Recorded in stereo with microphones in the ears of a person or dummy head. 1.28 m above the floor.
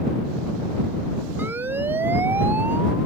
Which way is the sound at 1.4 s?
10° right (ahead or behind).